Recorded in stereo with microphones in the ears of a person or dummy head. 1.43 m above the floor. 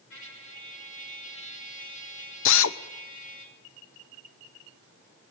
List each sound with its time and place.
0.1 s a trumpet: 75° left (ahead or behind), 5.5 m
2.5 s a drill: 65° left (ahead or behind), 1.0 m